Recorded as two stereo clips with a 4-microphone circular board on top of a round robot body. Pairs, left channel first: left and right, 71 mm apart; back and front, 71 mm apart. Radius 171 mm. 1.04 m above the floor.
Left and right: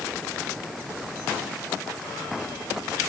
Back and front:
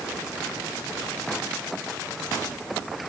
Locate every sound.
Only background noise.